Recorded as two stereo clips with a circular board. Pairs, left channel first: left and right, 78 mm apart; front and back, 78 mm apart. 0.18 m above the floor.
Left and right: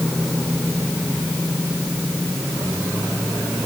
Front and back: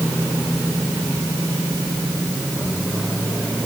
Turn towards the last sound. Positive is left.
No sound to turn to.